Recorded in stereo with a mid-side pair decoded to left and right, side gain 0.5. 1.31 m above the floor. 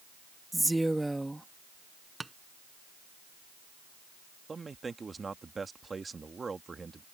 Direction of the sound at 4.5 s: 25° right.